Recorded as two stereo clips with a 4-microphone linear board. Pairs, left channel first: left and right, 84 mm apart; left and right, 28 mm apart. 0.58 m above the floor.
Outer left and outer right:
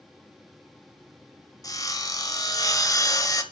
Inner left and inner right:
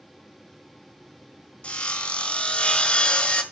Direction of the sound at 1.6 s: 45° left (ahead or behind).